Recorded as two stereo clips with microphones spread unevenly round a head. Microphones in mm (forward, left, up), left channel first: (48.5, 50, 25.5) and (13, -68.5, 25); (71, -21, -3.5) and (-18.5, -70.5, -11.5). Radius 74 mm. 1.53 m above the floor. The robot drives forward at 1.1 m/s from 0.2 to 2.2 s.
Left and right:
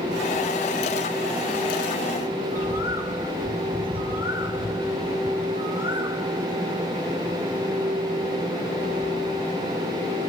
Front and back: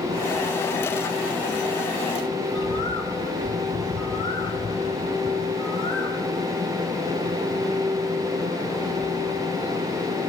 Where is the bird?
175° left, 3 m.